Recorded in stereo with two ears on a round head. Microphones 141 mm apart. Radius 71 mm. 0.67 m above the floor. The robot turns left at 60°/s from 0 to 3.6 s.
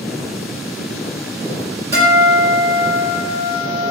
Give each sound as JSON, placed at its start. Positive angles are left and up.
{"t": 1.9, "sound": "a guitar", "azimuth_deg": -30, "distance_m": 1.3}